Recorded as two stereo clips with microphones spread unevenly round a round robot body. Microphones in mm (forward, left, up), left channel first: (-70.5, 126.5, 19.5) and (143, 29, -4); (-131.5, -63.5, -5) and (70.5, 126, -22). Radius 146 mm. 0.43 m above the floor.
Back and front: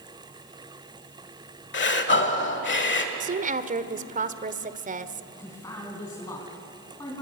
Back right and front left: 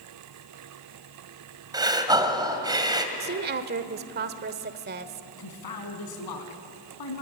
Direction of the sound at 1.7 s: 120° left.